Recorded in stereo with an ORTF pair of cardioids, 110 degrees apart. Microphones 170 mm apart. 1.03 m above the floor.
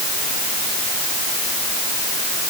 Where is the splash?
No splash in this recording.